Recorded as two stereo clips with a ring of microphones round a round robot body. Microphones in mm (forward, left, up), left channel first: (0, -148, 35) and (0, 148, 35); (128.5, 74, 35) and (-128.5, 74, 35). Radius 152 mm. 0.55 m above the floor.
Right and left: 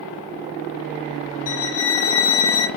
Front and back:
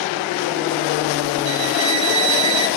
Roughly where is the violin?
Behind right.